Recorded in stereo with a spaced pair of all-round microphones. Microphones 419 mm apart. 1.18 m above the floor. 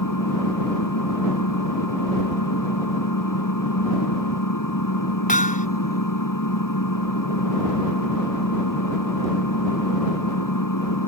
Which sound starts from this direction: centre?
Hammering, at 5.3 s.